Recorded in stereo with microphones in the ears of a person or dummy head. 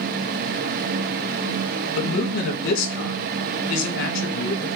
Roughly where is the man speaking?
Left.